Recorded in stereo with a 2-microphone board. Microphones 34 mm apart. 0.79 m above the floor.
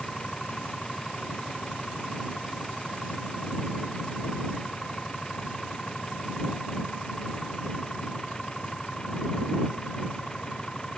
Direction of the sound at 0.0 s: 20° left (ahead or behind).